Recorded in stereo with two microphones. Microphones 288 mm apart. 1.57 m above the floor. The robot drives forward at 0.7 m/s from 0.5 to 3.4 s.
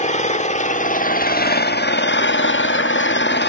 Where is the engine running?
25° left (ahead or behind), 2.0 m; by 3.5 s 40° left (ahead or behind), 1.3 m.